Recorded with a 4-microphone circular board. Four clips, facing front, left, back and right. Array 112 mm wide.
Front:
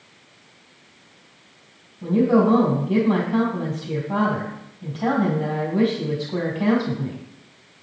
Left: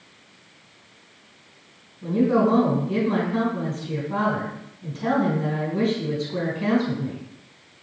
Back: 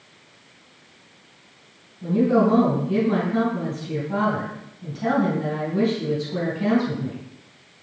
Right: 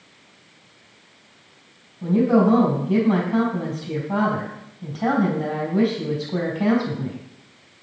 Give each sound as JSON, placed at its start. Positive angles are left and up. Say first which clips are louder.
{"t": 2.0, "sound": "a woman speaking", "louder": "right 2 dB, front 1 dB", "azimuth_deg": -60, "distance_m": 3.0}